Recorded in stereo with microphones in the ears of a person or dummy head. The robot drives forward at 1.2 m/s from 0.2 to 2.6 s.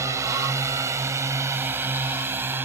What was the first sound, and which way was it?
A drone, 15° right (ahead or behind).